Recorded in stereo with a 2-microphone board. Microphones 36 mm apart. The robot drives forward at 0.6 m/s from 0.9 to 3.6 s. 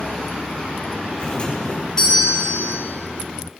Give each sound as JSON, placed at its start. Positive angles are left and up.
{"t": 1.2, "sound": "a doorbell", "side_deg": 25, "distance_m": 1.8}